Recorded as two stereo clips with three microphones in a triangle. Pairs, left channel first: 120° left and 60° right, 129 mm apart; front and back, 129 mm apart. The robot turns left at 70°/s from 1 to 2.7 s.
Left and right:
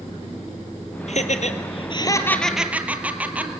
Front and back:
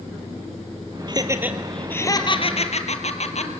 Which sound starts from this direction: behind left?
Laughter, at 1.1 s.